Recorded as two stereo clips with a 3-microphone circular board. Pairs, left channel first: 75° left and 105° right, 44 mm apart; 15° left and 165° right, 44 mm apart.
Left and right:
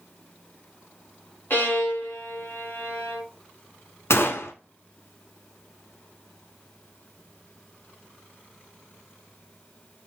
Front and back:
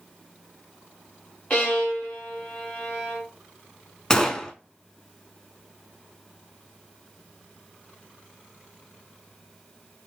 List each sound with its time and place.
1.5 s a violin: 65° left, 2 m
4.1 s a gunshot: 90° left, 0.5 m